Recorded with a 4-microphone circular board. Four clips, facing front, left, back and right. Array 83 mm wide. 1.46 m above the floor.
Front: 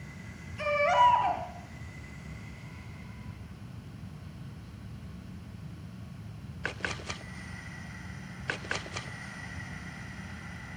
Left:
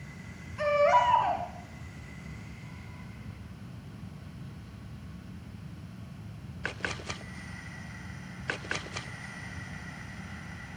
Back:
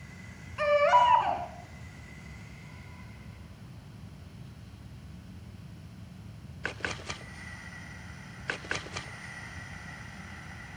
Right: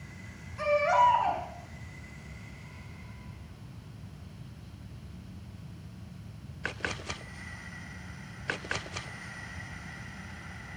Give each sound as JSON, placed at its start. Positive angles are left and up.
{"t": 0.6, "sound": "a baby crying", "azimuth_deg": 180, "distance_m": 7.0}